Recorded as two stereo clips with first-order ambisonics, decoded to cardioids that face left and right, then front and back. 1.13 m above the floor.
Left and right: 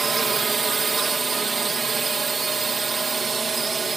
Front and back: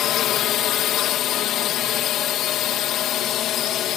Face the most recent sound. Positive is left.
turn(degrees=-25)